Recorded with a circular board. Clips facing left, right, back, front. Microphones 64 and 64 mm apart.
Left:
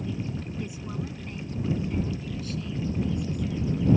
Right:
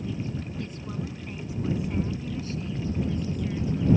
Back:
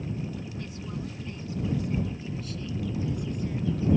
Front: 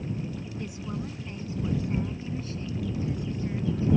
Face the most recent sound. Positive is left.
turn(degrees=-55)